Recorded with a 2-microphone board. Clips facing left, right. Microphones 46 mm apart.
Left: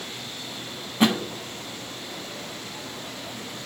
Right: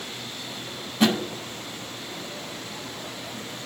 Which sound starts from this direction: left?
A thud, at 1.0 s.